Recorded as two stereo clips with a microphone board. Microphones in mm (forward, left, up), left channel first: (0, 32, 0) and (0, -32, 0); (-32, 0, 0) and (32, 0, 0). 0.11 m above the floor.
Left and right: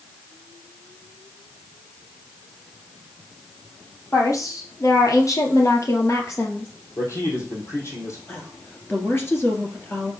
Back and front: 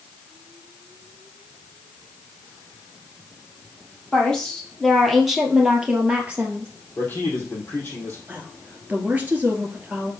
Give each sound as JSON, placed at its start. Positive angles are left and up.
{"t": 4.1, "sound": "a woman speaking", "azimuth_deg": 110, "distance_m": 2.5}
{"t": 7.0, "sound": "a man speaking", "azimuth_deg": 125, "distance_m": 3.5}
{"t": 8.3, "sound": "a woman speaking", "azimuth_deg": 55, "distance_m": 1.9}